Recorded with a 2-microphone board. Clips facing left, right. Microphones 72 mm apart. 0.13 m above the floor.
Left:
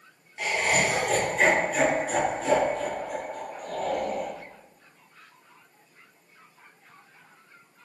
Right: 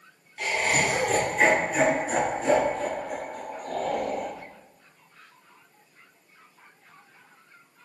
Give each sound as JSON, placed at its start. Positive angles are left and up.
{"t": 0.4, "sound": "laughter", "side_deg": 15, "distance_m": 1.6}